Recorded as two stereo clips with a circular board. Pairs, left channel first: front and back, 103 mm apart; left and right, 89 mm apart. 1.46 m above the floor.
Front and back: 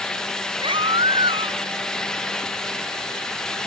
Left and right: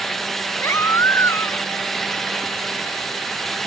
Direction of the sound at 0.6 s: 150° left.